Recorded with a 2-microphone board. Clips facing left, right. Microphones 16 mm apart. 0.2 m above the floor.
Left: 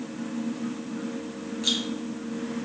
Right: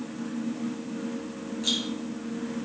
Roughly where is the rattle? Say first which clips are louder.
Left 1 dB; centre.